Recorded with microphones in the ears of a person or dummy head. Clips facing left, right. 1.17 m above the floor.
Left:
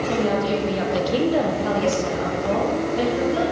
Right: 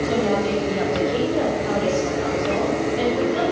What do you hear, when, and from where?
0.1 s a woman speaking: centre (ahead or behind), 0.9 m; by 3.4 s 65° left (ahead or behind), 1.8 m